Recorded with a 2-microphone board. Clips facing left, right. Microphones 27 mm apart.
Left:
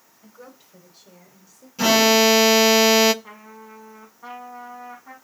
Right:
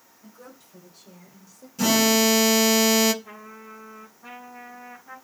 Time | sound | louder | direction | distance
0.2 | a woman speaking | left 2 dB | 40° left (ahead or behind) | 3 m
1.8 | an alarm | left 4 dB | 20° left (ahead or behind) | 0.6 m
3.2 | a trumpet | even | 50° left (ahead or behind) | 5 m